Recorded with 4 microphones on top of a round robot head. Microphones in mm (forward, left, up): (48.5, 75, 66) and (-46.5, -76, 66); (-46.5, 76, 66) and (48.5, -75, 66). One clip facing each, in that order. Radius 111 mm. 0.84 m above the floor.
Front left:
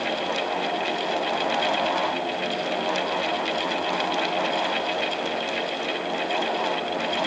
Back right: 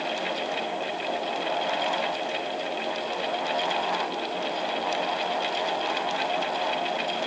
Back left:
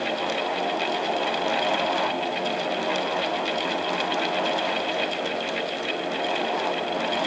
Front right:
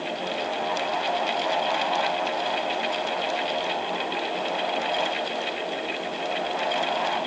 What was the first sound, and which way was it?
Only background noise.